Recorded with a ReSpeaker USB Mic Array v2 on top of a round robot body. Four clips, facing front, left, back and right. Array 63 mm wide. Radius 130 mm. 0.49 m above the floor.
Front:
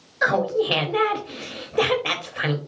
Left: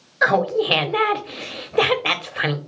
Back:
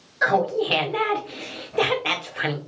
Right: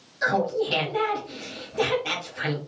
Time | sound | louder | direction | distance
0.2 | laughter | left 6 dB, even | 85° left | 1.7 m